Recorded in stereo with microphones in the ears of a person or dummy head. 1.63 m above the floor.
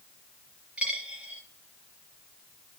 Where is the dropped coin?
10° right (ahead or behind), 5 m.